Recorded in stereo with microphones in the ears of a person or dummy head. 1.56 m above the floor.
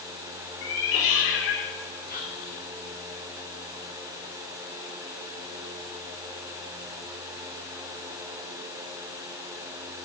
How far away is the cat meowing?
About 1.8 m.